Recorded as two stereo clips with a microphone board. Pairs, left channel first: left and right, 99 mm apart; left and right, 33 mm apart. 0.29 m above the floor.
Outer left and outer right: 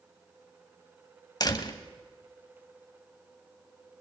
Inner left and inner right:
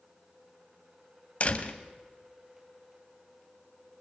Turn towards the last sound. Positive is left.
turn(degrees=45)  # may be behind; listen again after turning